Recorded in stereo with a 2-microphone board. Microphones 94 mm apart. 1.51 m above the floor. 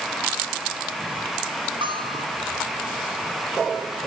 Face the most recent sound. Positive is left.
turn(degrees=-60)  # may be behind; listen again after turning